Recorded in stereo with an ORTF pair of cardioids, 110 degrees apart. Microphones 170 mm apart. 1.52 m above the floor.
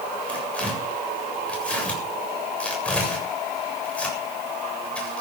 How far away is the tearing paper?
About 7.5 m.